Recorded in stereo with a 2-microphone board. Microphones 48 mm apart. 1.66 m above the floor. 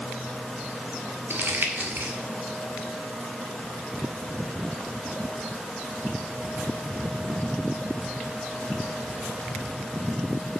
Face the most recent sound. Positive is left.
turn(degrees=-50)  # may be behind; listen again after turning